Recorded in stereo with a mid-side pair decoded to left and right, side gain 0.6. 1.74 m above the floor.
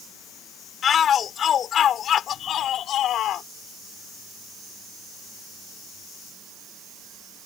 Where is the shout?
40° left; by 3.5 s 55° left.